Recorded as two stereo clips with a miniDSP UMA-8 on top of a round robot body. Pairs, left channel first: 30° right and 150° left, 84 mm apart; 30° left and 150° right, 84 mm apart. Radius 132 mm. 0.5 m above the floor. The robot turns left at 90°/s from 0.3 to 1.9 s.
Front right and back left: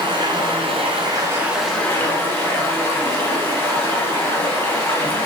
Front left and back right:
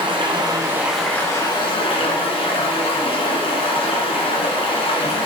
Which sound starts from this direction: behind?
Running water, at 0.0 s.